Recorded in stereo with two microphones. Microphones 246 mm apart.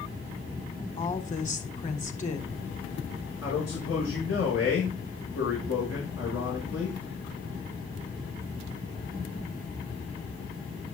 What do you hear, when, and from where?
1.0 s a woman speaking: 30° left (ahead or behind), 1.6 m
3.4 s a man speaking: 70° left (ahead or behind), 5 m